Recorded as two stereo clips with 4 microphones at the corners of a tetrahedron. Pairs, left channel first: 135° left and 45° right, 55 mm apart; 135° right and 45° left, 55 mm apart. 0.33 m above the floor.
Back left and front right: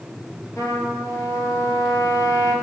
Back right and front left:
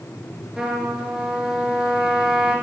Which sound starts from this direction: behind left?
A trumpet, at 0.6 s.